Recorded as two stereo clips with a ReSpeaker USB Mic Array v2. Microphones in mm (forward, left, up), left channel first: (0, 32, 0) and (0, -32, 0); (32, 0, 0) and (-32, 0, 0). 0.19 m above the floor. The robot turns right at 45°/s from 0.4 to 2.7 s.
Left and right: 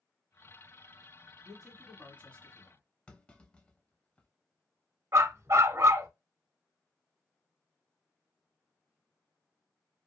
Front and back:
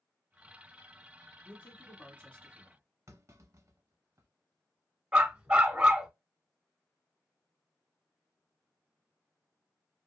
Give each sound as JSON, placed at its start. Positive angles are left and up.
{"t": 1.4, "sound": "a man speaking", "azimuth_deg": 5, "distance_m": 1.7}
{"t": 3.1, "sound": "a clunk", "azimuth_deg": 155, "distance_m": 0.6}
{"t": 5.1, "sound": "a dog barking", "azimuth_deg": -115, "distance_m": 0.7}